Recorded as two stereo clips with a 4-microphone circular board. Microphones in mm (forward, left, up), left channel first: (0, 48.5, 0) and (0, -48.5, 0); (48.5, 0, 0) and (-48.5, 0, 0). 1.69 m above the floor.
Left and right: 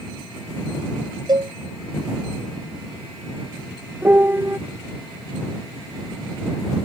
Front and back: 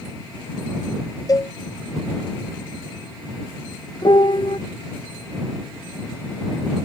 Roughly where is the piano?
Ahead right.